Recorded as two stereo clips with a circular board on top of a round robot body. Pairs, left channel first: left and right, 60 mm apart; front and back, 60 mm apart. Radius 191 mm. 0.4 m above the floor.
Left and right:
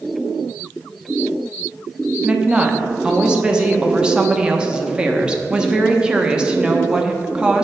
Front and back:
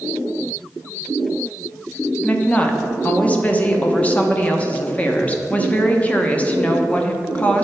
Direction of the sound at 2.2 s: 35° right.